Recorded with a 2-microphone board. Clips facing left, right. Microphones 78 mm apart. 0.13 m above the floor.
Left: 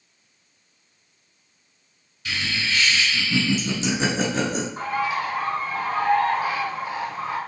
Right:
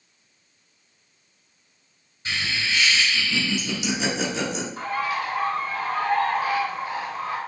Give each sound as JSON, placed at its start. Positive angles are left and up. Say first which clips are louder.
{"t": 2.2, "sound": "laughter", "louder": "even", "side_deg": -30, "distance_m": 1.1}
{"t": 4.8, "sound": "a bird", "louder": "even", "side_deg": 20, "distance_m": 1.6}